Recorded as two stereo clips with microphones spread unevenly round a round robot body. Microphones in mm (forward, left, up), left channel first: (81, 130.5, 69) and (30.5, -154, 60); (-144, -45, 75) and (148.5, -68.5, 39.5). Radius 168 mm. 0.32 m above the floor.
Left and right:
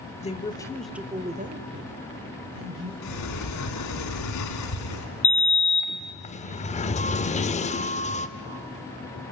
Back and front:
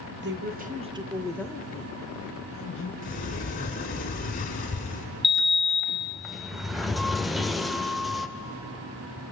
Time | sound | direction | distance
0.2 | a woman speaking | 20° left | 1.5 m
3.0 | a sliding door | 110° left | 2 m
5.2 | a sliding door | 65° left | 0.8 m